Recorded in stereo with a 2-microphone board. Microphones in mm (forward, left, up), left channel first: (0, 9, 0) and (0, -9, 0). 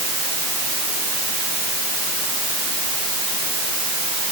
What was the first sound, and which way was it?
Only background noise.